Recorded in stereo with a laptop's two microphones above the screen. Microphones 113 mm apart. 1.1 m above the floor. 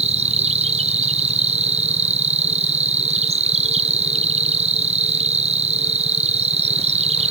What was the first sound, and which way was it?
An insect, 65° right (ahead or behind).